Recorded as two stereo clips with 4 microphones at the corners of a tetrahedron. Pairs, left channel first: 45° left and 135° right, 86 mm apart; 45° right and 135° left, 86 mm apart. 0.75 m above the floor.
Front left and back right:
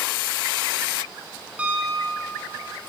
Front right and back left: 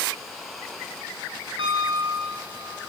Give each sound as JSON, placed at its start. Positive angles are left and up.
{"t": 1.6, "sound": "a piano", "azimuth_deg": 150, "distance_m": 9.5}